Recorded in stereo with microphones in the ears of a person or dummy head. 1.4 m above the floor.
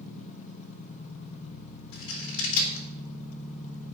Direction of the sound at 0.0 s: 40° left (ahead or behind).